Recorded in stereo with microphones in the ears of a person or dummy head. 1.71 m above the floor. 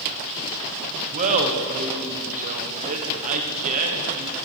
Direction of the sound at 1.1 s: 40° right (ahead or behind).